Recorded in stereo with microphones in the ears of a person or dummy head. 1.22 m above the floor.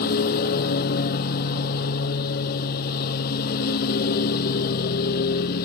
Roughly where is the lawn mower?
Left.